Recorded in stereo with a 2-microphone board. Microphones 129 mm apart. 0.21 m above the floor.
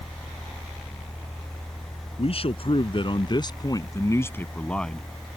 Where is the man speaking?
50° left (ahead or behind); by 5.0 s centre (ahead or behind).